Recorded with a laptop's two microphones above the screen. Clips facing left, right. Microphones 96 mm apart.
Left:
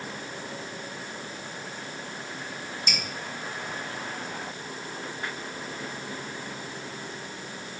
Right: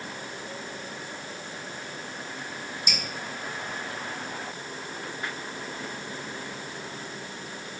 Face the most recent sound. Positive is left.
turn(degrees=-10)  # may be behind; listen again after turning